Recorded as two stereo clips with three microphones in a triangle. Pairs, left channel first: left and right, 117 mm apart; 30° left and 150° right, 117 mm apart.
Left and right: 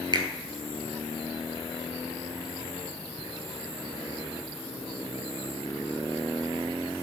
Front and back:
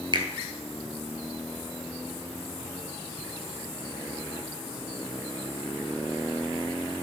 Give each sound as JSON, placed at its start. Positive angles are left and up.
{"t": 0.1, "sound": "a finger snap", "azimuth_deg": -125, "distance_m": 1.3}